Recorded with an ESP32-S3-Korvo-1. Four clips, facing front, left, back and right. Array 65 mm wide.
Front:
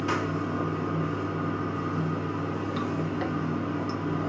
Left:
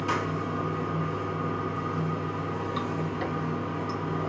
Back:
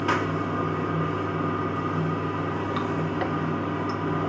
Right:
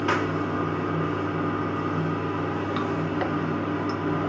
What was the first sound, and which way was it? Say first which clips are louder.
Running water: right 4 dB, back 3 dB; 115° right.